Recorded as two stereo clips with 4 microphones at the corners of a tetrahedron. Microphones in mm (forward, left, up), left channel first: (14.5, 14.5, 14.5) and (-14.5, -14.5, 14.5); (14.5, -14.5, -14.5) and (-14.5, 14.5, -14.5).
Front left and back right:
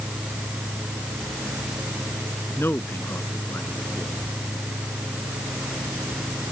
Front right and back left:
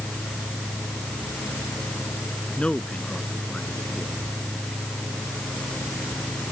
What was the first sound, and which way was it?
A man speaking, 25° left.